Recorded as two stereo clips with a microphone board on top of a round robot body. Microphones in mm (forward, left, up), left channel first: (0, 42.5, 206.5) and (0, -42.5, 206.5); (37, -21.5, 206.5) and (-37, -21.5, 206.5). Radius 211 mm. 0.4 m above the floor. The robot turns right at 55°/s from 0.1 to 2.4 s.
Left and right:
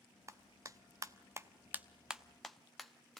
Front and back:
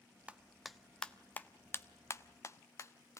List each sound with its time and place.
0.3 s a clap: 115° right, 1.2 m; by 3.2 s straight ahead, 1.2 m